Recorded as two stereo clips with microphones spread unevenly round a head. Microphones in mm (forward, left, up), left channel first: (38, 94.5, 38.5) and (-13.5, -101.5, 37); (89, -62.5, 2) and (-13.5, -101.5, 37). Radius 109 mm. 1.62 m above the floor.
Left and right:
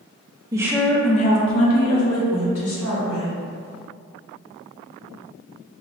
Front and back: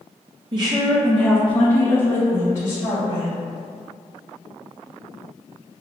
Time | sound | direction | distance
0.5 | a woman speaking | 175° right | 0.6 m